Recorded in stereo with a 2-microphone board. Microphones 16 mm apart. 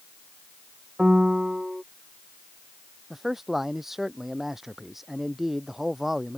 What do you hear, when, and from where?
1.0 s a piano: 75° right (ahead or behind)
3.1 s a man speaking: 20° right (ahead or behind)